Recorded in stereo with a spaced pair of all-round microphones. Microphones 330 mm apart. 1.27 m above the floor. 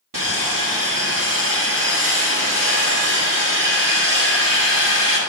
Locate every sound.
0.1 s sawing: 75° right (ahead or behind), 1.8 m